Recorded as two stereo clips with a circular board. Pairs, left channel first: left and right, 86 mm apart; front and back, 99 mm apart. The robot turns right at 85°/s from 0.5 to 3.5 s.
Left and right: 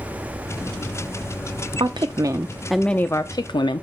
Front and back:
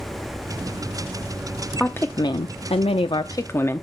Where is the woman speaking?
80° right, 0.7 m; by 3.8 s 65° left, 0.7 m.